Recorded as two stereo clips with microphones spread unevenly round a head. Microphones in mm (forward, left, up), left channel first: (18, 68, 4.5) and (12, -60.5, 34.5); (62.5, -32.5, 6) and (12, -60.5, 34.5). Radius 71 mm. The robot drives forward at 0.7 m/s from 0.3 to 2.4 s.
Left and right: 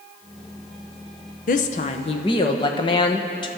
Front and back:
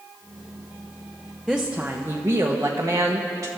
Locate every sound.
1.5 s a woman speaking: 115° left, 0.8 m; by 3.5 s 145° left, 1.3 m